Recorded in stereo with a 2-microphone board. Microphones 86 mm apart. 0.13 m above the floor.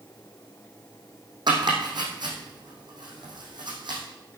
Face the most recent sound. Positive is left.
turn(degrees=-60)  # may be behind; listen again after turning